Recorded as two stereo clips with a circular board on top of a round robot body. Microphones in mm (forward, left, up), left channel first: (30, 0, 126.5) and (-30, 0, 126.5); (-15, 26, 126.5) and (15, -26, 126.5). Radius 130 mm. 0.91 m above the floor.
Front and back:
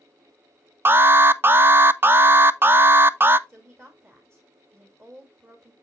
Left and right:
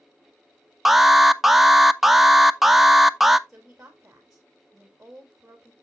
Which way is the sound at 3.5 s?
140° right.